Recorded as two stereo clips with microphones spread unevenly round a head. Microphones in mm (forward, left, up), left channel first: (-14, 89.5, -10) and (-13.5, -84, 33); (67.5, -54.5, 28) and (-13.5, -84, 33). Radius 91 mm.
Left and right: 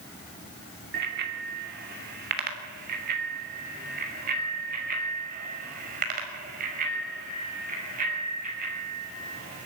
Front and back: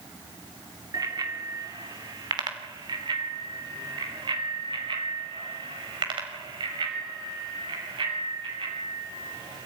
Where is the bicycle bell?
115° right, 2.5 m; by 9.7 s 135° right, 7.5 m.